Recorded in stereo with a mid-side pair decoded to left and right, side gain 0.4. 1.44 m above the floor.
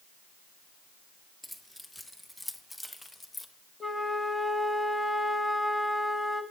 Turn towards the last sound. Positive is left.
turn(degrees=10)